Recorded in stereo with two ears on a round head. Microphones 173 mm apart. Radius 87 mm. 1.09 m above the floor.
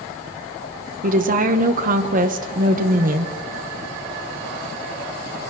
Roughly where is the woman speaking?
Right.